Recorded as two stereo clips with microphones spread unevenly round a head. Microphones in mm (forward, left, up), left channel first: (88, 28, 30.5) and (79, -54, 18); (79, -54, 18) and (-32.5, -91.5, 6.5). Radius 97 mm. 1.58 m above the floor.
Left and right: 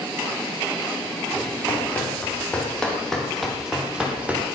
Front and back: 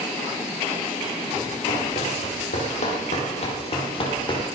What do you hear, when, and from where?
1.7 s running footsteps: 20° left, 5.5 m; by 4.4 s 25° right, 4 m